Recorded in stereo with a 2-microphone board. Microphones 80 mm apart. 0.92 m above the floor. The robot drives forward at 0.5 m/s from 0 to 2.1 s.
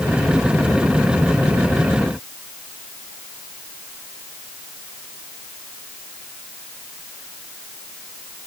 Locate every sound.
Only background noise.